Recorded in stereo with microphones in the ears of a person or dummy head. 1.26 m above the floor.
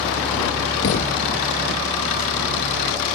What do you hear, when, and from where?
0.8 s a thud: 30° left (ahead or behind)